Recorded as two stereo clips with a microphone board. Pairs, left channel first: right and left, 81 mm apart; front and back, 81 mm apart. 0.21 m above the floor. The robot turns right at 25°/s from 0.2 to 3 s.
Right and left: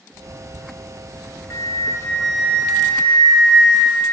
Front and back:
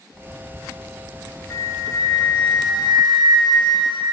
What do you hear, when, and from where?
1.5 s a flute: 50° right, 1.0 m; by 4.0 s 15° right, 1.0 m